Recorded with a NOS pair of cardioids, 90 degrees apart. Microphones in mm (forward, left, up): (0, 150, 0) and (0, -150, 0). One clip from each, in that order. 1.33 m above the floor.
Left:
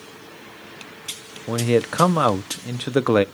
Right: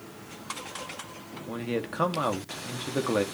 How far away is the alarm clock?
No alarm clock in this recording.